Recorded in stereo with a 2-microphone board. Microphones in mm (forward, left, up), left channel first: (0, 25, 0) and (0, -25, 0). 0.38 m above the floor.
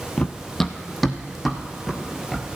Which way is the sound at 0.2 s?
20° left (ahead or behind).